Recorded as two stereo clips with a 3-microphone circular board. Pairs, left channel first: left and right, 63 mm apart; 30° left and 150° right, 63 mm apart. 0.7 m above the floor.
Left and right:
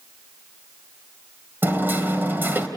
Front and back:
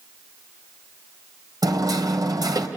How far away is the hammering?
About 2 m.